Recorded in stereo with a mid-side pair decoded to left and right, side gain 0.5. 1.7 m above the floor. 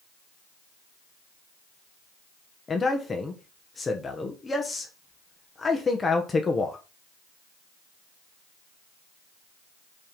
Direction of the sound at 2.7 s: 30° left.